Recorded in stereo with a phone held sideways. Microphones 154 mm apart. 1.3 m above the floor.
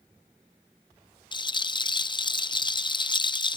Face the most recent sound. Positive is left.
turn(degrees=30)  # may be behind; listen again after turning